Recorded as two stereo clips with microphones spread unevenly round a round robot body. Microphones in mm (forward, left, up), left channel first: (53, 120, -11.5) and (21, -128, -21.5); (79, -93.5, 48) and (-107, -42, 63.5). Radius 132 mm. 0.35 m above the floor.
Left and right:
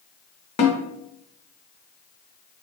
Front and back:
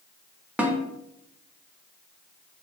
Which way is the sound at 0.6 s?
80° left.